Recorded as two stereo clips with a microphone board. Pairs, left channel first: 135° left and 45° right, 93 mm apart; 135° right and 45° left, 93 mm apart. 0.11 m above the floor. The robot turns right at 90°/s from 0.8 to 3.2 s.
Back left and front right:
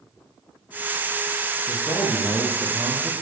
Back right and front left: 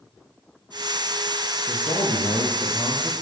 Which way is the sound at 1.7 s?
165° left.